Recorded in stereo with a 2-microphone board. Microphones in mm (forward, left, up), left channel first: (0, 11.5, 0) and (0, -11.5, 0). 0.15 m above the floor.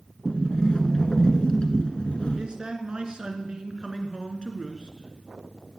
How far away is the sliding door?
About 1.5 m.